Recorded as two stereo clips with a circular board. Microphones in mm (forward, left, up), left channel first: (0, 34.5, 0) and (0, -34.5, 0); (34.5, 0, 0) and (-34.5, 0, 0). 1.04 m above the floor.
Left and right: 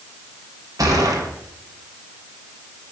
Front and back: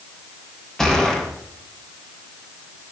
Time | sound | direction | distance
0.8 | a gunshot | 80° right | 1.0 m